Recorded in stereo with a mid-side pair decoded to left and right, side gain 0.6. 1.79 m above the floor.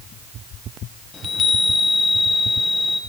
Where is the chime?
35° left, 1.8 m.